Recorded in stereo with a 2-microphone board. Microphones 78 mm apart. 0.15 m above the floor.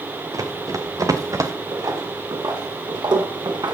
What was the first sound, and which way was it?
Running footsteps, 50° right (ahead or behind).